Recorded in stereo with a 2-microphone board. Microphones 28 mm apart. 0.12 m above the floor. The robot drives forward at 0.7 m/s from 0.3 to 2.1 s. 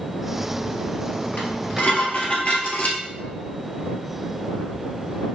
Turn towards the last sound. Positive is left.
turn(degrees=55)  # may be behind; listen again after turning